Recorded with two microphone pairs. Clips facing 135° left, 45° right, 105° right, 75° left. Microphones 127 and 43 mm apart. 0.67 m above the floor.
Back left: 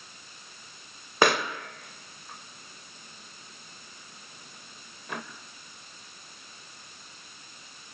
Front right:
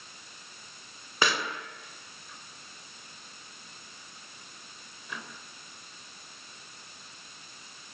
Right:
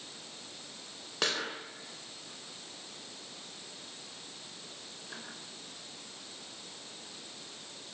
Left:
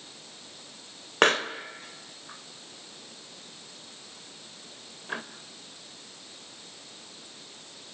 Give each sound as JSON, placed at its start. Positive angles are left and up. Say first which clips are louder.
{"t": 1.2, "sound": "a pop", "louder": "back left 6 dB, left 11 dB", "azimuth_deg": 110, "distance_m": 3.0}